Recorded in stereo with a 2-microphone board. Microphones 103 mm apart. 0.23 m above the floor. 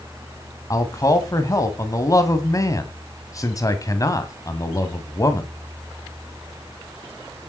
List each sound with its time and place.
0.7 s a man speaking: 35° left (ahead or behind), 1.8 m